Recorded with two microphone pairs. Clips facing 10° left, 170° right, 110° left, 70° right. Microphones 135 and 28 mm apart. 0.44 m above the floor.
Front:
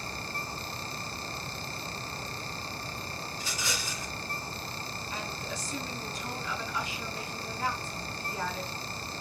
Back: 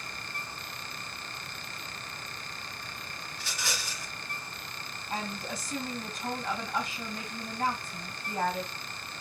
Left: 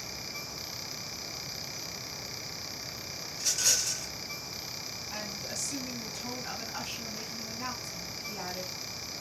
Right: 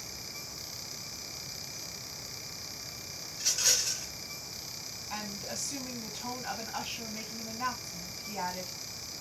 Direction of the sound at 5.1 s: 130° right.